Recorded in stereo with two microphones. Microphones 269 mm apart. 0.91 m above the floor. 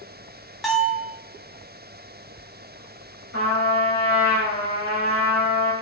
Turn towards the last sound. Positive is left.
turn(degrees=65)  # may be behind; listen again after turning